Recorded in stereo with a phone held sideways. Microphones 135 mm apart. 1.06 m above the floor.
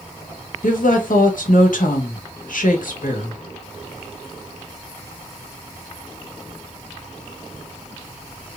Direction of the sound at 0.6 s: 80° left.